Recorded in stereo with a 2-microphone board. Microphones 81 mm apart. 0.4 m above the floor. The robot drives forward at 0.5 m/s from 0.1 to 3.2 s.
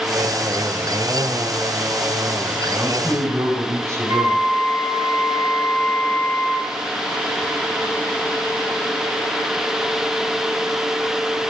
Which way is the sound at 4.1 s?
65° right (ahead or behind).